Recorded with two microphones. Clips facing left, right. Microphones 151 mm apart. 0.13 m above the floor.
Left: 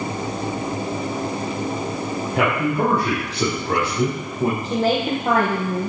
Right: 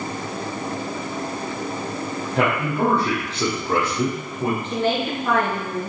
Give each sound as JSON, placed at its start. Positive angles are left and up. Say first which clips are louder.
{"t": 2.3, "sound": "a man speaking", "louder": "left 1 dB", "side_deg": 5, "distance_m": 4.0}
{"t": 4.6, "sound": "a woman speaking", "louder": "left 2 dB", "side_deg": 40, "distance_m": 5.0}